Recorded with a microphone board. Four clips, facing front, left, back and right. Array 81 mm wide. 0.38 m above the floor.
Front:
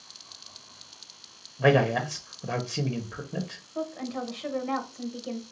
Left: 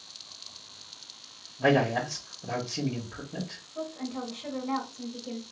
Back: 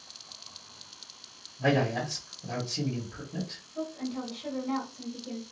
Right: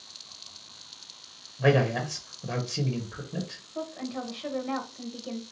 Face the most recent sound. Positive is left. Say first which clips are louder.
# right 1 dB, front 2 dB
turn(degrees=-30)